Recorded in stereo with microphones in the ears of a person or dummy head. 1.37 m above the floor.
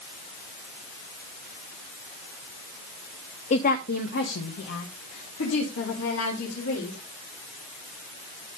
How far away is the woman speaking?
About 0.6 m.